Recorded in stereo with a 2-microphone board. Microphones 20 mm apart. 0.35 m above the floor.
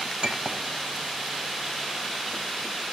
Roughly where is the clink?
Right.